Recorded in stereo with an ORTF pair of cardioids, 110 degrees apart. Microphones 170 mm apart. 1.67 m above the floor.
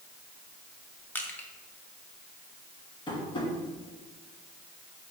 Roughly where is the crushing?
Ahead.